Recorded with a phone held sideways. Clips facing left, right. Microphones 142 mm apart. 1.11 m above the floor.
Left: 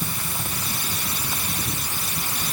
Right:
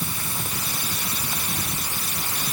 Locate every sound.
Only background noise.